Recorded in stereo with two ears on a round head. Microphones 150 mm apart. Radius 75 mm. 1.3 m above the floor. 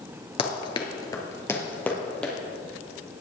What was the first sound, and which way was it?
Running footsteps, 30° left (ahead or behind).